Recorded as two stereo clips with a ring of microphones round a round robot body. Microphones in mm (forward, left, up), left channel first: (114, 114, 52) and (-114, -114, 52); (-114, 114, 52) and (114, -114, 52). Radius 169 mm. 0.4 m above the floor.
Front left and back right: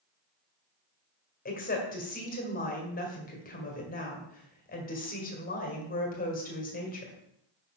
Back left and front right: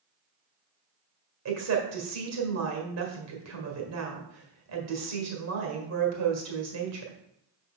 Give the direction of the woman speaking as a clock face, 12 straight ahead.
1 o'clock.